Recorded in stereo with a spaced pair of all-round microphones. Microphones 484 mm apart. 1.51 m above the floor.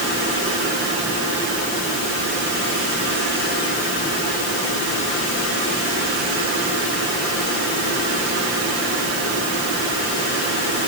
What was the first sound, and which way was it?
Only background noise.